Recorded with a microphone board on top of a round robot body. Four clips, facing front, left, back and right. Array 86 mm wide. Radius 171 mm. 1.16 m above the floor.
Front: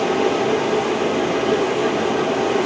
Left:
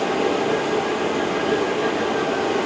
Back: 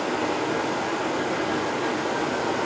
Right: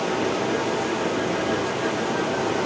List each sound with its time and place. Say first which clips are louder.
0.0 s running water: left 3 dB, front 7 dB; 15° left, 5.5 m